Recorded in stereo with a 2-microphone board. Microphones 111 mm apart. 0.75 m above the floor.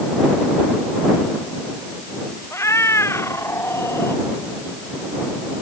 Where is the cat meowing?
25° left (ahead or behind).